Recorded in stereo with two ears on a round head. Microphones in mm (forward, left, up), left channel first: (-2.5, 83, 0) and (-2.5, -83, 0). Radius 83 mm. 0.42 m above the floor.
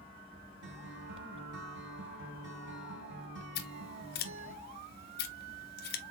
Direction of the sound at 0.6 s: 65° right (ahead or behind).